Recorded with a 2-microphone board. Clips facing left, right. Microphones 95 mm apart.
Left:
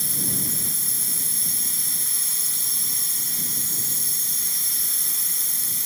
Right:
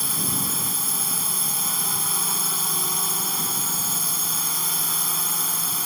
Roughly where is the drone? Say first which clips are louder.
Right 3 dB; right.